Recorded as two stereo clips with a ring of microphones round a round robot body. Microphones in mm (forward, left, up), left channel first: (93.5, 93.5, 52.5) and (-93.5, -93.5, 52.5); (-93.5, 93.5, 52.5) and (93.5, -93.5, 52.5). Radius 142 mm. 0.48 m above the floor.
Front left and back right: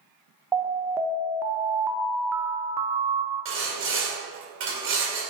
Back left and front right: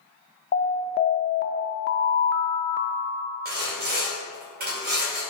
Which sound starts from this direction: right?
Sawing, at 3.5 s.